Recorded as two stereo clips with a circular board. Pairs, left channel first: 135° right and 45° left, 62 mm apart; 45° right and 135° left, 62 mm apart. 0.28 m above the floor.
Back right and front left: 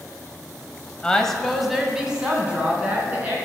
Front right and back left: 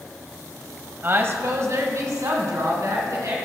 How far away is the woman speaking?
About 1.5 m.